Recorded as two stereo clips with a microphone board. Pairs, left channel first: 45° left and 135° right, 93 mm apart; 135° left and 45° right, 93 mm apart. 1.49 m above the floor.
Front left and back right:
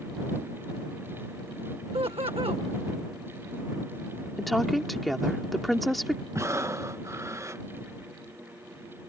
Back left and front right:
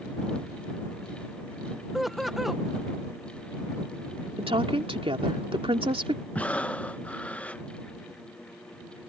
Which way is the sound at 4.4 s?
45° right.